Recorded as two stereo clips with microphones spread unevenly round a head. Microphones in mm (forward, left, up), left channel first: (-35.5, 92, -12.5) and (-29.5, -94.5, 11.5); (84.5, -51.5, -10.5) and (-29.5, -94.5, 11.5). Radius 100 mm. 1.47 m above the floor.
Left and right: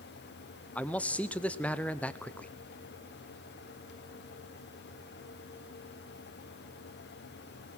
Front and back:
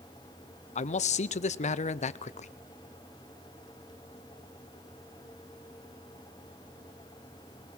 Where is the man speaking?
10° left, 0.6 m.